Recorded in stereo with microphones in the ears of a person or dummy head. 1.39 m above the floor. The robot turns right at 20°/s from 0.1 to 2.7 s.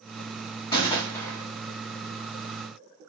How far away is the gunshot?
About 0.7 m.